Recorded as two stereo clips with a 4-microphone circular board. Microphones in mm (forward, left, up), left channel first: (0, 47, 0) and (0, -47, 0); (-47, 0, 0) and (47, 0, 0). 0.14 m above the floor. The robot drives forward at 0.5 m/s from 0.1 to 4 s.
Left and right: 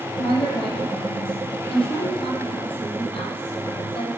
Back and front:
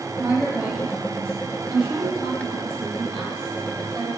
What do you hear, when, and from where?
0.2 s a woman speaking: 80° left, 5.5 m; by 4.1 s 105° left, 5.5 m